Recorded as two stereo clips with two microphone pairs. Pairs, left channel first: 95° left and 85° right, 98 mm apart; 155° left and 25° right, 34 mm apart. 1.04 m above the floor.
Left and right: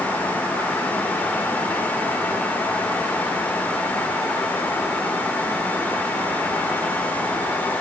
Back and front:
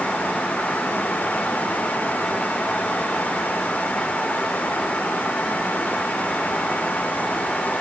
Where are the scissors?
No scissors in this recording.